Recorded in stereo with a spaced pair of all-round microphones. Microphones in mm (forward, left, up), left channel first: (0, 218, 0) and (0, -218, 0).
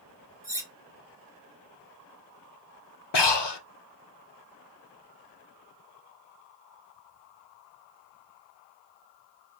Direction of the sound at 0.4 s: 5° right (ahead or behind).